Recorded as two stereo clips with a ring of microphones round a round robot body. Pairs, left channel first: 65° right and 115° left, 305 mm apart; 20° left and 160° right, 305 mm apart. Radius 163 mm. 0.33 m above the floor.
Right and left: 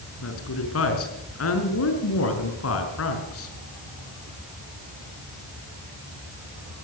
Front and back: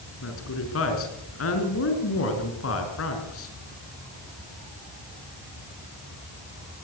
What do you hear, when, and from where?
0.2 s a woman speaking: 25° right, 4.5 m